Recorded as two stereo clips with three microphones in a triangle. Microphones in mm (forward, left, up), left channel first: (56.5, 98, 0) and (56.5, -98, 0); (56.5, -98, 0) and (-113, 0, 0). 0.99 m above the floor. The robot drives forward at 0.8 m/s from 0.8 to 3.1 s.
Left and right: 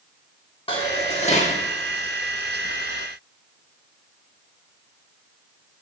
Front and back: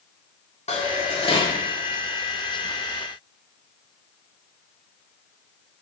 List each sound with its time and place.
0.7 s dishes clattering: 25° left, 1.8 m; by 1.6 s 40° left, 1.2 m